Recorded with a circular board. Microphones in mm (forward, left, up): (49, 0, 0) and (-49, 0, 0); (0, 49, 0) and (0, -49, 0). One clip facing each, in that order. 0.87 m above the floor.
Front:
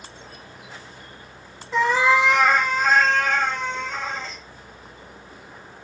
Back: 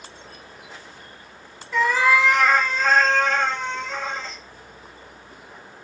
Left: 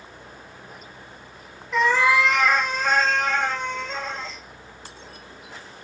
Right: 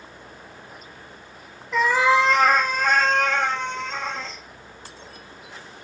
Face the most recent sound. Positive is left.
turn(degrees=-85)